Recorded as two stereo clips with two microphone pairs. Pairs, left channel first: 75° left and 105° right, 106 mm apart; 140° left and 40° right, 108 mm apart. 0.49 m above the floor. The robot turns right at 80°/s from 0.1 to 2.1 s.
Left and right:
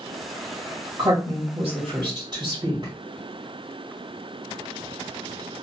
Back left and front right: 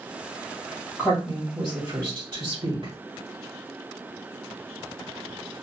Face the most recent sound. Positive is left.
turn(degrees=-70)